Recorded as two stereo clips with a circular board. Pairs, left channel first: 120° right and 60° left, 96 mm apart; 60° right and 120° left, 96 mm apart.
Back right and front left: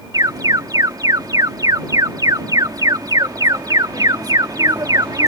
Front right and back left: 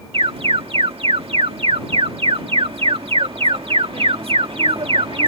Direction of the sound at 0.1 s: 110° left.